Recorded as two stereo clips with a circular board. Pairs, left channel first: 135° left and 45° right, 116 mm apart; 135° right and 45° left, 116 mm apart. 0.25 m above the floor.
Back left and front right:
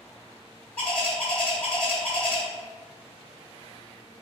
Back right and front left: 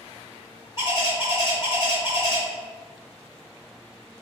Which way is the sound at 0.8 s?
155° right.